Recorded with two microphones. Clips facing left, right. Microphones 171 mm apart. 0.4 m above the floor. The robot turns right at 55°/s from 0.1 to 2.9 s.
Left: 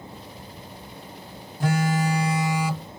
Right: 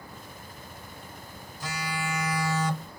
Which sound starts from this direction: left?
A phone buzzing, at 1.6 s.